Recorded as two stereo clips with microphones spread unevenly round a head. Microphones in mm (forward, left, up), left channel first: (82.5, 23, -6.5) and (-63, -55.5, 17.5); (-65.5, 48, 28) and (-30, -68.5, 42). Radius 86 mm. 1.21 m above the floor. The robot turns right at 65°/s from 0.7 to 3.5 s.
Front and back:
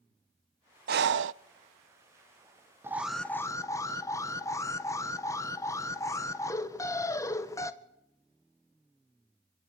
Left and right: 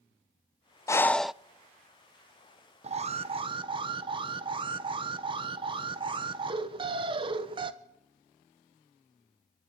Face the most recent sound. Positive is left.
turn(degrees=-30)